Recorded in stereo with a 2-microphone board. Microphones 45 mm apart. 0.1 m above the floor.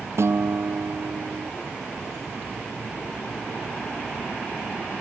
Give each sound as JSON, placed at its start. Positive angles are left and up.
{"t": 0.2, "sound": "a guitar", "side_deg": -65}